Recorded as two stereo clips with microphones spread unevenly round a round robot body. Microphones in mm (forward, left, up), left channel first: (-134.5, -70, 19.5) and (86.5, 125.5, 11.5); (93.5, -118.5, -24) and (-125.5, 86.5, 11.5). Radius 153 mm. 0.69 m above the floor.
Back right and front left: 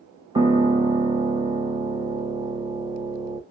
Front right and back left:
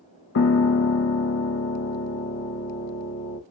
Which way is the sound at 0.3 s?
30° right.